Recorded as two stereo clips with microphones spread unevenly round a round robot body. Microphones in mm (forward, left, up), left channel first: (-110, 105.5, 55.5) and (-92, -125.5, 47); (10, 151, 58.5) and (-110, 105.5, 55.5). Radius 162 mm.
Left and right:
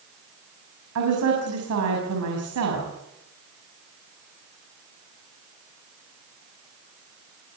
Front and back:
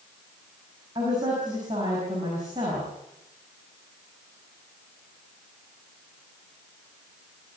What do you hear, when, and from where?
0.9 s a woman speaking: 90° right, 6 m